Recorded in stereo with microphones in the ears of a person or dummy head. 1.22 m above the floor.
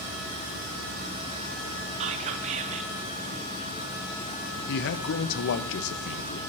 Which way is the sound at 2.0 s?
40° right (ahead or behind).